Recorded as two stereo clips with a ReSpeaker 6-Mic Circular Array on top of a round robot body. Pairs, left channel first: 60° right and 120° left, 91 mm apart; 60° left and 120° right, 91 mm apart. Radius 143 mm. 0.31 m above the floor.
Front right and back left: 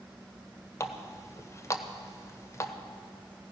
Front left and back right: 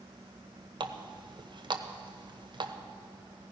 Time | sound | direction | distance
0.8 | a running tap | 110° right | 1.1 m